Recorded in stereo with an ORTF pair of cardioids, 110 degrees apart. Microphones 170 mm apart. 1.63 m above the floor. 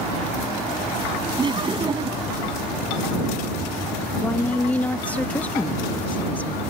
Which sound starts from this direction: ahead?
A woman speaking, at 4.2 s.